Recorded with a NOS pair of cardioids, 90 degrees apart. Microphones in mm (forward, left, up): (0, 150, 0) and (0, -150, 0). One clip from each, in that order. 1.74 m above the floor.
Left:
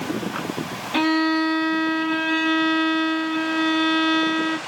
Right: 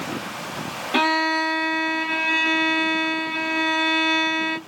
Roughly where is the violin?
Ahead.